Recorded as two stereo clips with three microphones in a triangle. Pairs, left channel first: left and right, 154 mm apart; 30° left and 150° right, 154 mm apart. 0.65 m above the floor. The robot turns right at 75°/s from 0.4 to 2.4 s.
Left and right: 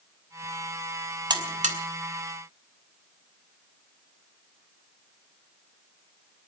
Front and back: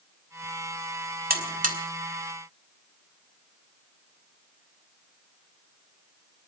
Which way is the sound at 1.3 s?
150° right.